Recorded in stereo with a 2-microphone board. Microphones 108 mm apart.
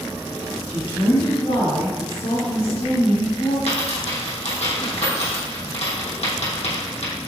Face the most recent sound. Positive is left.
turn(degrees=80)